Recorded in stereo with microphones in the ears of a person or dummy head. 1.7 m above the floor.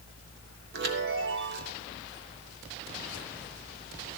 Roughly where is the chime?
Right.